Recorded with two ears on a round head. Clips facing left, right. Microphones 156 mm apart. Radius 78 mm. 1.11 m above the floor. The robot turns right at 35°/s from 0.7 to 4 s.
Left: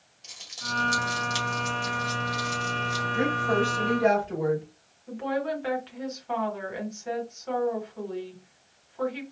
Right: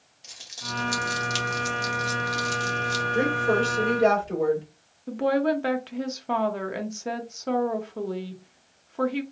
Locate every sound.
0.2 s crumpling: 5° right (ahead or behind), 1.9 m; by 3.0 s 85° right, 1.9 m
3.1 s a woman speaking: 80° right, 3 m; by 4.6 s 50° right, 3 m
5.1 s a woman speaking: 60° right (ahead or behind), 0.9 m